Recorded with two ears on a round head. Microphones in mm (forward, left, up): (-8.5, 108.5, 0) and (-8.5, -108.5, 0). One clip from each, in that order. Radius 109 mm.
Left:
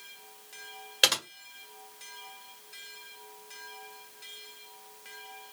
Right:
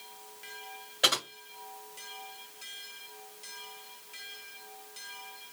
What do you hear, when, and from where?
1.0 s typing on a keyboard: 55° left (ahead or behind), 1.7 m